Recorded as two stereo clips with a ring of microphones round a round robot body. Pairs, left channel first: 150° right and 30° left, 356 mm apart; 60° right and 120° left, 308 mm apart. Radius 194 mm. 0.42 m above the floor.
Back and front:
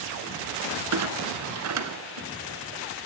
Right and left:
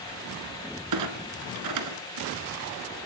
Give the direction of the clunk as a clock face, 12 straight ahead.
9 o'clock.